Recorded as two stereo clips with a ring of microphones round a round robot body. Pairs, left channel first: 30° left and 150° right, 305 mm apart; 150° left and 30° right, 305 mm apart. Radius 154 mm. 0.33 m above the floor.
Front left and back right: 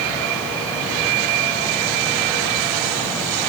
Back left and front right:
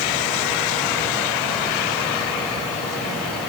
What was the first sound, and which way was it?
Only background noise.